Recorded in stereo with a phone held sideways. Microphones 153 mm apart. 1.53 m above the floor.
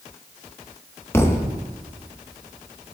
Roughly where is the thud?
Centre.